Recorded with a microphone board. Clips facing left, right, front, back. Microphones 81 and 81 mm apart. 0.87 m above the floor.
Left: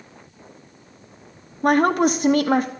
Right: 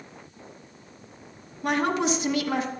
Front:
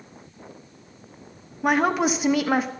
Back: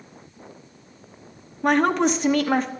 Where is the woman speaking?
80° left, 0.9 m.